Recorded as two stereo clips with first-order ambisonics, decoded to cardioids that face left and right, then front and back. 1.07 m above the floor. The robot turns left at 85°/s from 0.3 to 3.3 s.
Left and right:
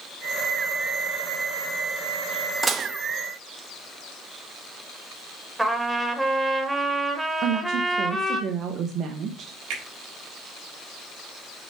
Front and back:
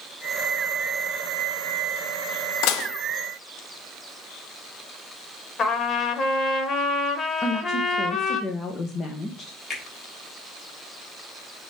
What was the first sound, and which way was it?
Dishes clattering, 10° right.